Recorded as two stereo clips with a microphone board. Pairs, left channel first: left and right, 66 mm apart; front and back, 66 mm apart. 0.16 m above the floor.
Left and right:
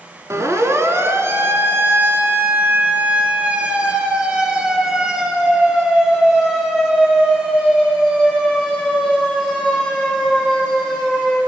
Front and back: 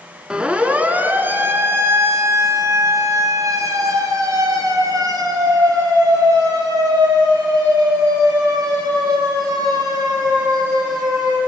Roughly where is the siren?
Right.